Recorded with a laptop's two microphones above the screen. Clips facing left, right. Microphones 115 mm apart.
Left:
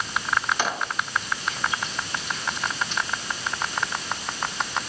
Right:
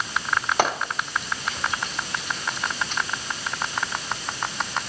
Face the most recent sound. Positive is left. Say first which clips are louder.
# right 3 dB
turn(degrees=-55)  # may be behind; listen again after turning